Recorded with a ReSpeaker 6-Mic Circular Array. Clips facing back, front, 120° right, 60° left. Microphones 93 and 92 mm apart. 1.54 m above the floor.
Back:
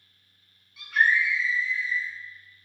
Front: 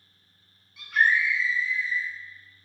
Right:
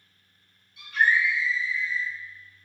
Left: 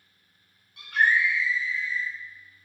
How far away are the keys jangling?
I don't hear keys jangling.